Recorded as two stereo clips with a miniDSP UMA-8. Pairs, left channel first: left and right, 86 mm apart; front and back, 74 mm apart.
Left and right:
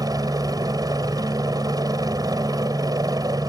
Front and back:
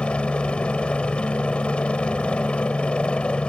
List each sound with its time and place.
0.0 s a helicopter: 70° right